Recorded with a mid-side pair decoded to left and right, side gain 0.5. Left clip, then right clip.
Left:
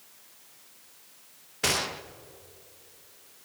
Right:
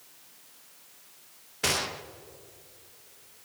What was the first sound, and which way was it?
A gunshot, 10° left.